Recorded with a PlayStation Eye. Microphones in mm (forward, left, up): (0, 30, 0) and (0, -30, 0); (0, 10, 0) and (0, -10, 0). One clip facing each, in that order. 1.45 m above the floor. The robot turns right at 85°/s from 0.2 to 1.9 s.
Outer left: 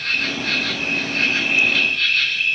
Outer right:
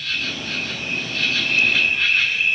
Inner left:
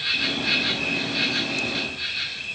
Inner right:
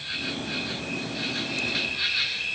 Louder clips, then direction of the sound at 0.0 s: Outer left 4 dB, inner left 7 dB; 50° left.